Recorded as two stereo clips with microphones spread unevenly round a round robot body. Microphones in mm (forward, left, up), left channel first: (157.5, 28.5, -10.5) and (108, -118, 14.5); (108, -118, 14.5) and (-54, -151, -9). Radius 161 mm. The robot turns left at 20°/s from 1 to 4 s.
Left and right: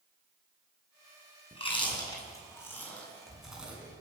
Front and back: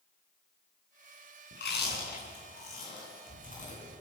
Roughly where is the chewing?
Ahead.